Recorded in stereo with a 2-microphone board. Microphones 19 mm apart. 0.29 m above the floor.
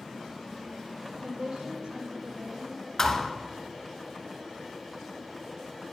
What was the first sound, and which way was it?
A woman speaking, 70° right (ahead or behind).